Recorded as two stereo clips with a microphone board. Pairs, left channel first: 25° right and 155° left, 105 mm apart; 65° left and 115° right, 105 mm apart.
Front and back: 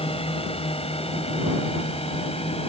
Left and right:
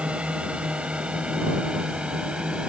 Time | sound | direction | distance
0.0 | a drone | 35° right | ?